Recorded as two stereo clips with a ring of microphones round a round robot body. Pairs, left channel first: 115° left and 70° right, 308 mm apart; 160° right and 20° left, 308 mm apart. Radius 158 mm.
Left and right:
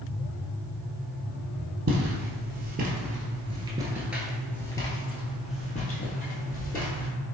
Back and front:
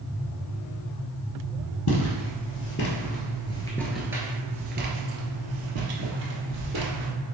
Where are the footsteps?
120° right, 1.3 m; by 7.1 s 50° left, 1.7 m.